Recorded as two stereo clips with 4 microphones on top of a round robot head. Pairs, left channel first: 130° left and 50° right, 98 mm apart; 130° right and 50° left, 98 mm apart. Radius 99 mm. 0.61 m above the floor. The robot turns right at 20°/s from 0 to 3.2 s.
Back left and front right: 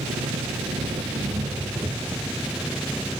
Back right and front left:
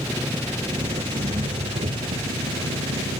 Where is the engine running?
20° right; by 3.2 s 45° left.